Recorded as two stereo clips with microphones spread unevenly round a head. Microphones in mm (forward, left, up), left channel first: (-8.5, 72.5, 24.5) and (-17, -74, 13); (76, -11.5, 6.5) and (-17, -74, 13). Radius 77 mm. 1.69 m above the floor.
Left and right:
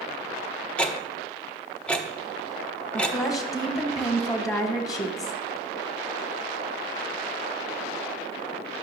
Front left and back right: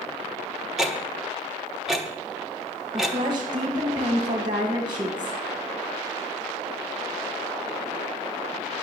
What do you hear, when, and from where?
0.8 s ticking: 140° left, 0.7 m
2.9 s a woman speaking: 150° left, 1.6 m